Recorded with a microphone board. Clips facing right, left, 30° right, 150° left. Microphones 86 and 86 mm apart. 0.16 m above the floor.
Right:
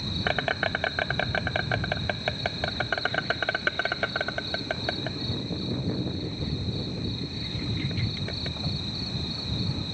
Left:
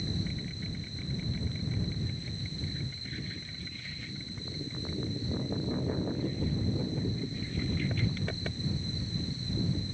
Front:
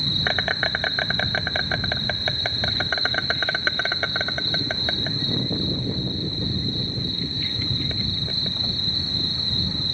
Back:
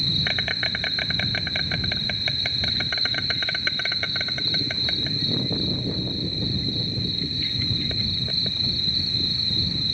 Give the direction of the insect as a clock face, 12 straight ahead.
3 o'clock.